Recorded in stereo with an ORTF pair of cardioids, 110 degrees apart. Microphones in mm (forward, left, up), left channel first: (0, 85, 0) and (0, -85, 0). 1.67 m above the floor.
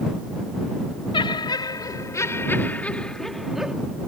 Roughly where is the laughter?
Ahead left.